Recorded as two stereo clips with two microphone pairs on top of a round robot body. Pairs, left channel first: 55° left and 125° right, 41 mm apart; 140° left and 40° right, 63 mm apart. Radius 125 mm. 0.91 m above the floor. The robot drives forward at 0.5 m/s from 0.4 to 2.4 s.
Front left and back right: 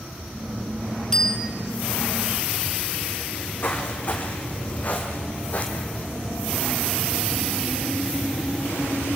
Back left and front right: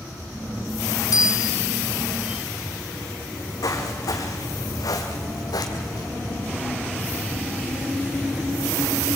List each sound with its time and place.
1.1 s a bicycle bell: 130° left, 3 m
3.3 s footsteps: 105° left, 3 m; by 6.1 s 115° left, 1.5 m